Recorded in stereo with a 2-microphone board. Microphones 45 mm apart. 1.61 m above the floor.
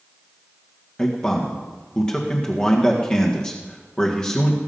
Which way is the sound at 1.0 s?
20° left (ahead or behind).